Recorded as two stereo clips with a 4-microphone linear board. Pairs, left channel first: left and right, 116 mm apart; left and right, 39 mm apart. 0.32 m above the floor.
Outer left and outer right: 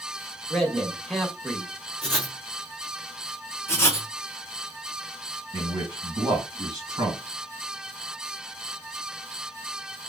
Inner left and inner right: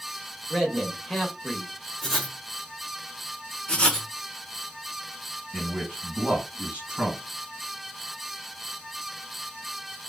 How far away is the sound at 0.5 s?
About 0.9 m.